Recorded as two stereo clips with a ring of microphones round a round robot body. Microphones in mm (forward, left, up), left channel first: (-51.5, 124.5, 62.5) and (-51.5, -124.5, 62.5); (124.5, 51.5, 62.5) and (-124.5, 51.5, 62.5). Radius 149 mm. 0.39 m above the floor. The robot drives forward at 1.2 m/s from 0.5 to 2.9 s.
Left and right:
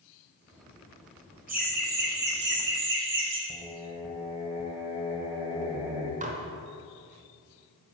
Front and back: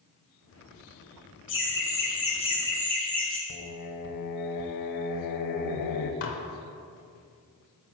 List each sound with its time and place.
1.5 s laughter: 35° right, 2.5 m; by 3.4 s 85° right, 1.8 m
3.5 s singing: 10° right, 0.7 m
6.2 s dishes clattering: 30° right, 0.9 m